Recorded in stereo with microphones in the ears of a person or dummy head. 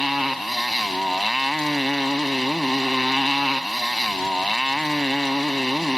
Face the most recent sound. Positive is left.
turn(degrees=0)  # may be behind; listen again after turning